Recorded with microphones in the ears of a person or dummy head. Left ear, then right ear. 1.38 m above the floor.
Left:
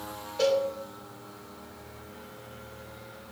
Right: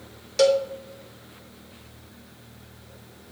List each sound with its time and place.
0.4 s a cowbell: 65° right (ahead or behind), 1.1 m